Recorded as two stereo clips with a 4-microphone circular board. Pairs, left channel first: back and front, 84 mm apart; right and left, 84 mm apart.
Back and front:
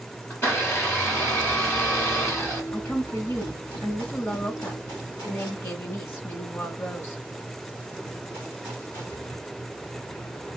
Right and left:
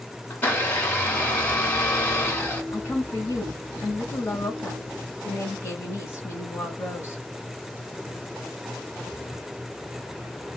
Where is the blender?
140° right, 2.0 m.